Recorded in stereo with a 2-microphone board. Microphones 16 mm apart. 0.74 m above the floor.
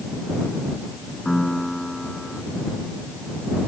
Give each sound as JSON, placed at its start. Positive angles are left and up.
{"t": 1.2, "sound": "a piano", "side_deg": 35}